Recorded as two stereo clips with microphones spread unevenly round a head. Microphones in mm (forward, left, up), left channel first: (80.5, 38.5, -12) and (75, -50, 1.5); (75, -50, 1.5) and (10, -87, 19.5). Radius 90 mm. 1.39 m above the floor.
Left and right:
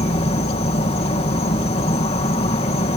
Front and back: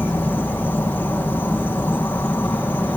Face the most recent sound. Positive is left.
turn(degrees=105)